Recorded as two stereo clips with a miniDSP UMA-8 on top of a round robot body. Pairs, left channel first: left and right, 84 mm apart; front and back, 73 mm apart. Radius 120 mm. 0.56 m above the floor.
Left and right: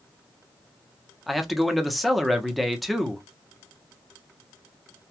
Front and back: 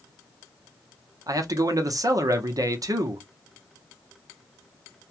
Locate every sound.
1.3 s a man speaking: straight behind, 0.9 m